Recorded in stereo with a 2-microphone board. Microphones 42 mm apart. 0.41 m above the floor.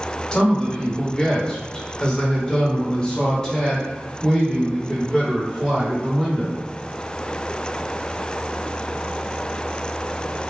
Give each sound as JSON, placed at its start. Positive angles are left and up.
{"t": 0.3, "sound": "a man speaking", "side_deg": 15, "distance_m": 1.9}